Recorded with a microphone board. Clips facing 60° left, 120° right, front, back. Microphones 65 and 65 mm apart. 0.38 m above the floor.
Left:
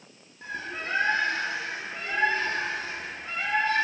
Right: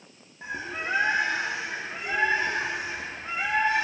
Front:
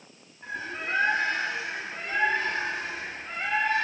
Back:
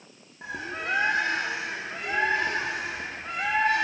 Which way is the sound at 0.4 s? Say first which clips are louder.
Right 2 dB, back 1 dB; 170° left.